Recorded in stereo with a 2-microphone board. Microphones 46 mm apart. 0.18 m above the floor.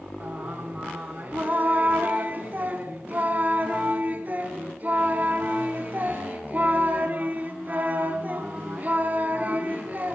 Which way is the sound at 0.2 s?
35° right (ahead or behind).